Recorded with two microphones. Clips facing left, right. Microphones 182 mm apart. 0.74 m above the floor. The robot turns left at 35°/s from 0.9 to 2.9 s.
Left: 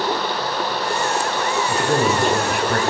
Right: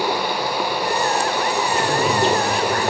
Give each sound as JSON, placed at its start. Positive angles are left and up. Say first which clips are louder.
{"t": 1.7, "sound": "a man speaking", "louder": "left 3 dB", "azimuth_deg": 145, "distance_m": 3.5}